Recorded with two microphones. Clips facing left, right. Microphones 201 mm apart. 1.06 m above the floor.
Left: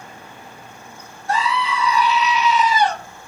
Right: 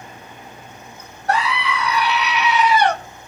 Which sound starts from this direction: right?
A scream, at 1.3 s.